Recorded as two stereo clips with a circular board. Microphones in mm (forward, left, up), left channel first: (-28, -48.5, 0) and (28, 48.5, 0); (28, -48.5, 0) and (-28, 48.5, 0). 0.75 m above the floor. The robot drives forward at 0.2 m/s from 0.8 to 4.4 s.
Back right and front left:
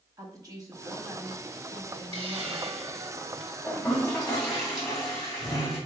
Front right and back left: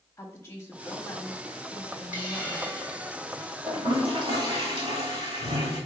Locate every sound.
0.2 s a woman speaking: 5° left, 1.3 m; by 2.7 s 10° left, 0.9 m
2.1 s a hiss: 45° left, 1.4 m; by 3.6 s 60° left, 1.2 m
3.7 s a toilet flushing: 150° left, 2 m; by 5.8 s 155° left, 2 m